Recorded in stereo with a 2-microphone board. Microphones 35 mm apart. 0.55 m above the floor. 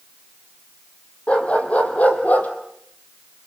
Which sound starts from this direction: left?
A dog barking, at 1.3 s.